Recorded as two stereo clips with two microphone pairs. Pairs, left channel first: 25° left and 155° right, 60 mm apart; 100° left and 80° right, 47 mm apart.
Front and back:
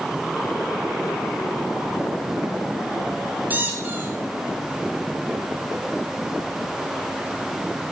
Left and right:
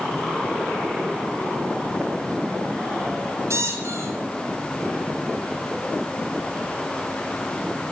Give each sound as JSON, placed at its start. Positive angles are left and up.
{"t": 3.5, "sound": "a squeak", "azimuth_deg": -90, "distance_m": 8.5}